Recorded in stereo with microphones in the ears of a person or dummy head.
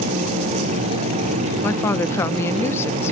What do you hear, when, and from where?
1.6 s a woman speaking: 15° left (ahead or behind)